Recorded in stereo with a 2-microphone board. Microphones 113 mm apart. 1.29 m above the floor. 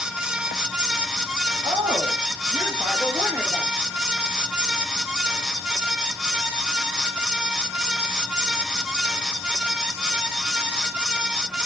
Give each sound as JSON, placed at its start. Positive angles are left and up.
{"t": 1.6, "sound": "a woman speaking", "side_deg": -40, "distance_m": 3.0}